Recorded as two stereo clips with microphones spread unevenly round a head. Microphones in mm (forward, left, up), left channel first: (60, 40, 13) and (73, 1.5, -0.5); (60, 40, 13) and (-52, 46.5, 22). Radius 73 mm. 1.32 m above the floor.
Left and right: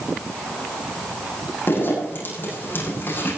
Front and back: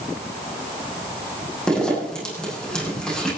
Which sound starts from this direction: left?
A zipper, at 1.7 s.